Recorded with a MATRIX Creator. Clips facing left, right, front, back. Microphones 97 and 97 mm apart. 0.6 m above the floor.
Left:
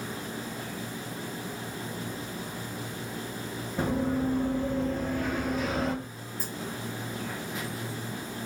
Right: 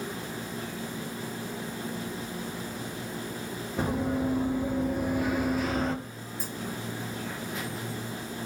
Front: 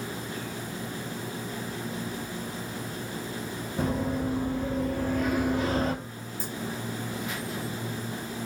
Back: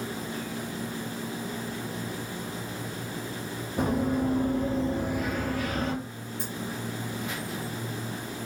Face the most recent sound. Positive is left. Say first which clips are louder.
# even, even
turn(degrees=175)